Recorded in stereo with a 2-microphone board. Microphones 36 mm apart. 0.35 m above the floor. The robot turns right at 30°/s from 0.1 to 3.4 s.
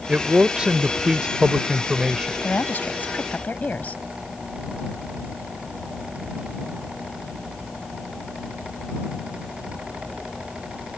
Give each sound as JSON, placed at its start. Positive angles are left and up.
{"t": 0.1, "sound": "a man speaking", "azimuth_deg": -100}
{"t": 2.4, "sound": "a woman speaking", "side_deg": 60}